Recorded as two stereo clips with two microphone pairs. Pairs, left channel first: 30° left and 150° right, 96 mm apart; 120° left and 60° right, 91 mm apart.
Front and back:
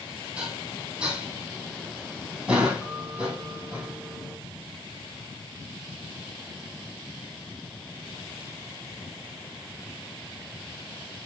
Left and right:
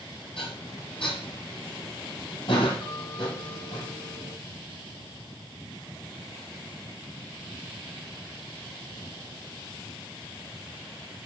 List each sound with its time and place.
0.4 s dishes clattering: 130° left, 3 m